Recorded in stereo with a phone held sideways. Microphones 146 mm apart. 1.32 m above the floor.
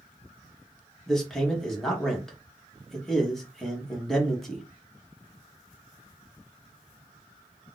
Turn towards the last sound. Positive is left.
turn(degrees=5)  # may be behind; listen again after turning